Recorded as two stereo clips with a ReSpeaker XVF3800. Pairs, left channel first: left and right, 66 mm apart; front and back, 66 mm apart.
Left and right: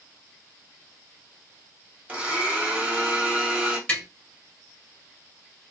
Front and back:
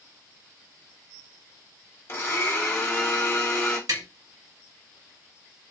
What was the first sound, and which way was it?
A blender, 30° right.